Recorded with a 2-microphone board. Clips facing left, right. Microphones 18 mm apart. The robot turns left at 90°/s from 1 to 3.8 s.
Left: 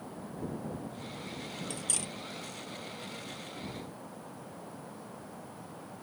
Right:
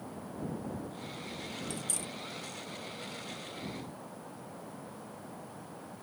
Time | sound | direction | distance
1.7 | cutlery clinking | 15° left (ahead or behind) | ?